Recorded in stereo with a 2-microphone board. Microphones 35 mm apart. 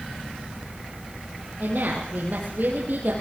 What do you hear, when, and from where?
1.6 s a woman speaking: 65° right (ahead or behind), 4 m